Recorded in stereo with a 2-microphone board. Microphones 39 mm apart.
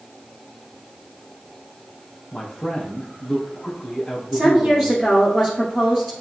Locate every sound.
2.3 s a man speaking: 20° left (ahead or behind), 1.5 m
4.3 s a woman speaking: 5° right (ahead or behind), 1.7 m